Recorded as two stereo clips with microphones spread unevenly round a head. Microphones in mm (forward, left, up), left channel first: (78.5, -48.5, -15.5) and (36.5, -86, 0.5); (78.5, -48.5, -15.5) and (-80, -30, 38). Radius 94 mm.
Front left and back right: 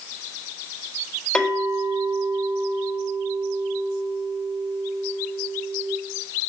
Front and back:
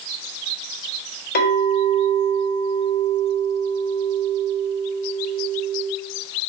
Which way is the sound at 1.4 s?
35° right.